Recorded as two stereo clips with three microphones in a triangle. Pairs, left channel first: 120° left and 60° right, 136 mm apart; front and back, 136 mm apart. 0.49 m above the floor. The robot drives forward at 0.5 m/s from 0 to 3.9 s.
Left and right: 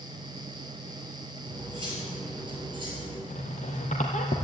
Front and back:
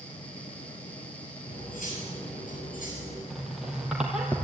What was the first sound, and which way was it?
Cutlery clinking, 5° right.